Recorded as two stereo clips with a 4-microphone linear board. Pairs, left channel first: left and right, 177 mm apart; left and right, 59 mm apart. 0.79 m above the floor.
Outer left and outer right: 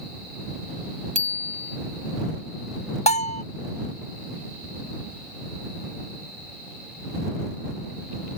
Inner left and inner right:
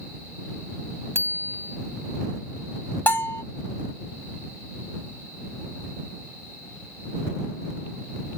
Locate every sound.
1.1 s a bicycle bell: 45° right (ahead or behind)
3.1 s a bell: 40° left (ahead or behind)